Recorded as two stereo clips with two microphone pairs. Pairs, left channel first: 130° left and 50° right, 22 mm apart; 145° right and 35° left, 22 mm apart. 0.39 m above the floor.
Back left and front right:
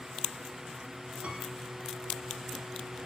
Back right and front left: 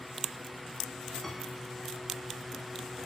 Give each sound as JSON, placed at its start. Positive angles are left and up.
{"t": 1.2, "sound": "a piano", "azimuth_deg": -65, "distance_m": 2.0}